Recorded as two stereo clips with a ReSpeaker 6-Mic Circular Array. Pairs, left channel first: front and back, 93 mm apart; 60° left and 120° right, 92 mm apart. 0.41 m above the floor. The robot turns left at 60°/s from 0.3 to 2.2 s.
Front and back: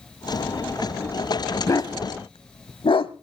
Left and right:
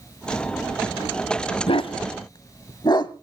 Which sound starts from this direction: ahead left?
A dog barking, at 1.7 s.